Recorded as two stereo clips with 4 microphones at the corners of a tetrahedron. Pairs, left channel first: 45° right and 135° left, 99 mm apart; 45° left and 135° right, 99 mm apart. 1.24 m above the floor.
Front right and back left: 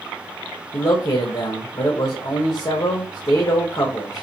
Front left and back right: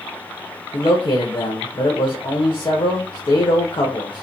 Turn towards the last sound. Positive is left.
turn(degrees=-5)